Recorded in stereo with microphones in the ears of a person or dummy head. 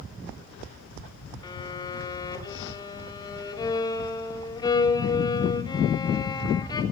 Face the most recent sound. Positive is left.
turn(degrees=20)  # may be behind; listen again after turning